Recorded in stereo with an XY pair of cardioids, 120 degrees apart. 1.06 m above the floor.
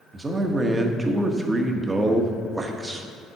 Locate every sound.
0.1 s a man speaking: 20° right, 1.0 m